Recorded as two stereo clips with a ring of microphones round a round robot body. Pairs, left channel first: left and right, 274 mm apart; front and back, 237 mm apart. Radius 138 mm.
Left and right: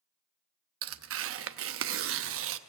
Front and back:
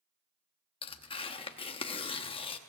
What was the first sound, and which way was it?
Tearing paper, 65° right.